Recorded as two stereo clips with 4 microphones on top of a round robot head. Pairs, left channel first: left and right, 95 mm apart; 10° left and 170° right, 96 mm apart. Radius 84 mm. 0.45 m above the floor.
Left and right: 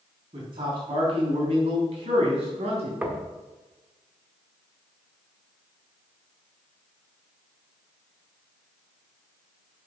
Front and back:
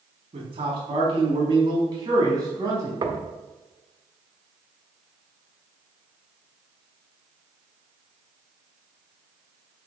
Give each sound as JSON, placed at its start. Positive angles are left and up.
{"t": 0.3, "sound": "a man speaking", "azimuth_deg": -135, "distance_m": 4.0}
{"t": 3.0, "sound": "knocking", "azimuth_deg": -160, "distance_m": 1.5}